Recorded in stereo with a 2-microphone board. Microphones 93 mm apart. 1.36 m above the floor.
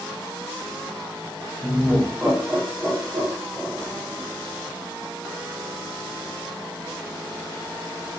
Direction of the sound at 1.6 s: 25° right (ahead or behind).